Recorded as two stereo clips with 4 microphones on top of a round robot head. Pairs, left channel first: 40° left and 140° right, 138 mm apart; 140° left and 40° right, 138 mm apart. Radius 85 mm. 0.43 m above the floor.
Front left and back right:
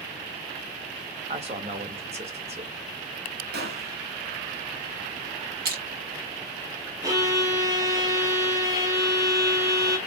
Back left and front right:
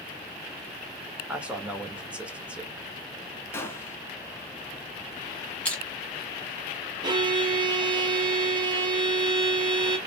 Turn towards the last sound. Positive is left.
turn(degrees=-85)